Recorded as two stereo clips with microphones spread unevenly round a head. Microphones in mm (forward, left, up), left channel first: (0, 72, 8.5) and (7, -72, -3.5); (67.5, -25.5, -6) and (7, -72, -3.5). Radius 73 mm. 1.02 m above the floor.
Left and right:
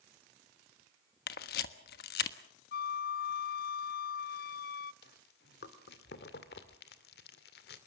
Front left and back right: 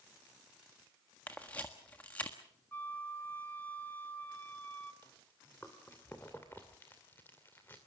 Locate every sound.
1.3 s a camera shutter: 115° left, 1.3 m
2.7 s a flute: 115° left, 0.6 m
5.0 s chewing: 115° left, 2 m